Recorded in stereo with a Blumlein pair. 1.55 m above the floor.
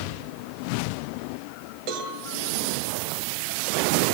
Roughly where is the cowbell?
Ahead right.